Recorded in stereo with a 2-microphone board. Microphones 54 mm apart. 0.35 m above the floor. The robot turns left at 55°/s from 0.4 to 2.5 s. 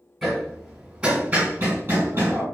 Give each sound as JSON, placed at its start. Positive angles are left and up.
{"t": 0.2, "sound": "hammering", "side_deg": 5, "distance_m": 1.6}